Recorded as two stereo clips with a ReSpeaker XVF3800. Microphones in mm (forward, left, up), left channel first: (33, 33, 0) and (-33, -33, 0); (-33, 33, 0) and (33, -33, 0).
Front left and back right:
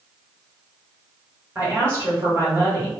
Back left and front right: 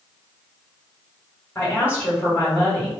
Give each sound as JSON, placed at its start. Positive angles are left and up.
{"t": 1.6, "sound": "a woman speaking", "azimuth_deg": 180, "distance_m": 1.6}